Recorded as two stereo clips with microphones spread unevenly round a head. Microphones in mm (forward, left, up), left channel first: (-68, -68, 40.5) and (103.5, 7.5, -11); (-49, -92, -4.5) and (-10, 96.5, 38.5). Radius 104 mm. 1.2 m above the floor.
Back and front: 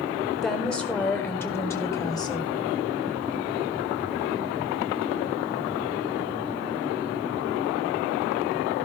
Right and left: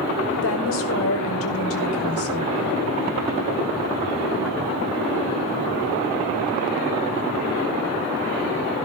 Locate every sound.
0.4 s a woman speaking: 70° right, 4.5 m; by 2.5 s 85° right, 5 m